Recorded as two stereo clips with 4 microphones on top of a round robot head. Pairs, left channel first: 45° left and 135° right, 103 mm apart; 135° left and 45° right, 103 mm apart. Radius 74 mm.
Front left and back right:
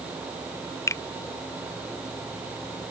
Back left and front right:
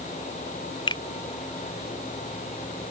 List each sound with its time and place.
0.9 s a finger snap: 100° left